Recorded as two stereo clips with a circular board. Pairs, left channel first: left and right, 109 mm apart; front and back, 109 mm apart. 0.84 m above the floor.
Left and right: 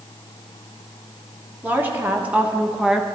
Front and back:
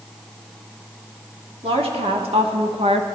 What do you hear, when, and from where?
1.6 s a woman speaking: 160° right, 1.5 m; by 3.1 s 175° right, 0.8 m